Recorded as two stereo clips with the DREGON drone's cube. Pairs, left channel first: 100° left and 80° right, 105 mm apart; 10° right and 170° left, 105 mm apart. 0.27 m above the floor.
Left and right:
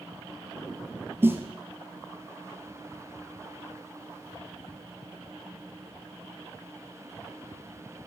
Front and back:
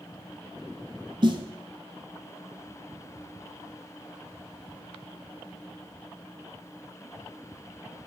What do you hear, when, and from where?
1.2 s a snare drum: 145° right, 0.8 m